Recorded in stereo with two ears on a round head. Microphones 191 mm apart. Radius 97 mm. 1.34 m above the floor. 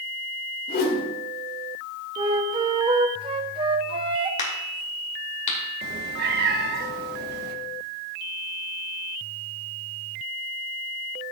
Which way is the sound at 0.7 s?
45° left (ahead or behind).